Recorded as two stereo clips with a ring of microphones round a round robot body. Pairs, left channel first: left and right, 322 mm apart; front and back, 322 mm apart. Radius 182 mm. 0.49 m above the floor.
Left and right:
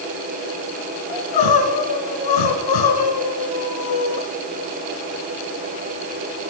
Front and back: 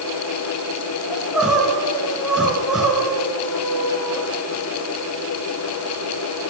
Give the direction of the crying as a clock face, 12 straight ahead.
9 o'clock.